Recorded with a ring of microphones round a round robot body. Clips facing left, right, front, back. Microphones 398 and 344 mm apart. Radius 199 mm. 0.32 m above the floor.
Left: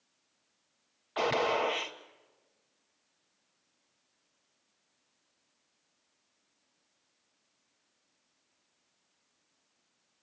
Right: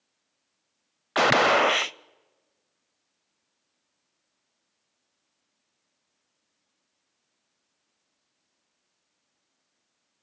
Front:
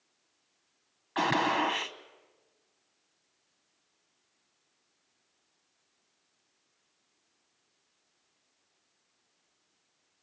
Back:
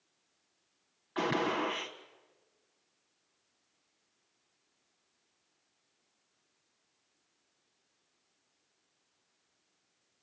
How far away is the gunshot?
About 0.5 m.